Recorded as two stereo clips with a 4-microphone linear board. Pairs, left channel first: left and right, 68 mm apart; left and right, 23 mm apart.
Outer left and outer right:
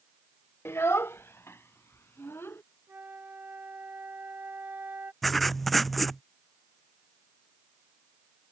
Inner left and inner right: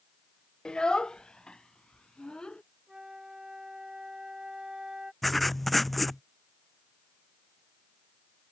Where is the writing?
Centre (ahead or behind).